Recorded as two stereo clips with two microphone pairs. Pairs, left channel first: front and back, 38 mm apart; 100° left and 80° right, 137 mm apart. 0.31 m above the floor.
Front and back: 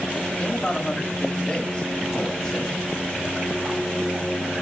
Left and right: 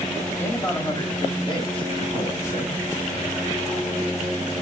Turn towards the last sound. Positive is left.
turn(degrees=75)